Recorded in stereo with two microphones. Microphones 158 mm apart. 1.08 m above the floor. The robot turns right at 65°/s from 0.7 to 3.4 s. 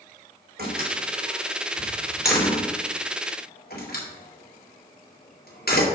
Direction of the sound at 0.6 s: 80° right.